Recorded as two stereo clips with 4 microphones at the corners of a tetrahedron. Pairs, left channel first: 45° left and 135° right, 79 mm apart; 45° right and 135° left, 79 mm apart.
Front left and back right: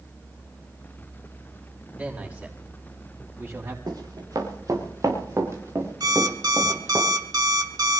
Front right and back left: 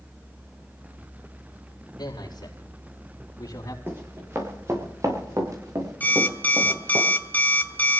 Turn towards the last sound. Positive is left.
turn(degrees=-110)